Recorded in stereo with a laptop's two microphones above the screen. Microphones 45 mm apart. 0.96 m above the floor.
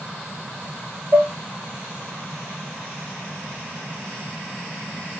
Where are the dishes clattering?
35° right (ahead or behind), 0.6 m.